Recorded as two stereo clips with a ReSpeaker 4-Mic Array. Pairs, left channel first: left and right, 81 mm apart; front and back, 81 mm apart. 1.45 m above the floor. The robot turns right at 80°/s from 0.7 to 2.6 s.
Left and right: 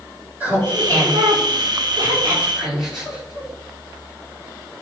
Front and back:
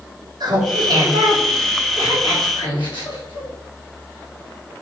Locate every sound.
0.4 s laughter: 155° right, 3.5 m; by 3.5 s 5° right, 3.5 m